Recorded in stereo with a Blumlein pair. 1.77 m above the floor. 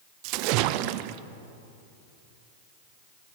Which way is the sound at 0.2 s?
45° right.